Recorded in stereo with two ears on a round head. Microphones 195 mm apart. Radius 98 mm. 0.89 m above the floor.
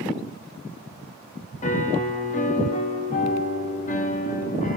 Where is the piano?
35° left (ahead or behind), 0.7 m.